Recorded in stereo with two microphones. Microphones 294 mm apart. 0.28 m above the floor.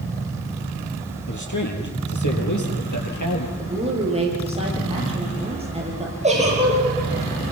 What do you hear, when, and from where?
1.3 s a man speaking: 80° left, 6.5 m
3.6 s a woman speaking: 20° right (ahead or behind), 8 m
6.2 s a giggle: 25° right (ahead or behind), 8.5 m